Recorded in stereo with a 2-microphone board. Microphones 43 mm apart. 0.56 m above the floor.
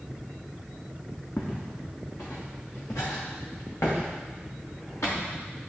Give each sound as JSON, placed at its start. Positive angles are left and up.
{"t": 1.4, "sound": "footsteps", "side_deg": 65, "distance_m": 2.0}